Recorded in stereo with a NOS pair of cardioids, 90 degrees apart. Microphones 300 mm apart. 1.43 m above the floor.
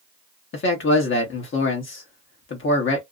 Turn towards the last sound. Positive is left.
turn(degrees=40)